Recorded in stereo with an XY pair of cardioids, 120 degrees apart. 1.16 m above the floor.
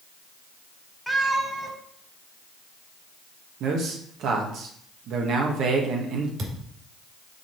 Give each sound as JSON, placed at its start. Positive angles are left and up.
{"t": 1.1, "sound": "a cat meowing", "azimuth_deg": -10, "distance_m": 1.8}
{"t": 3.6, "sound": "a man speaking", "azimuth_deg": -65, "distance_m": 1.3}
{"t": 6.4, "sound": "a thud", "azimuth_deg": -50, "distance_m": 2.5}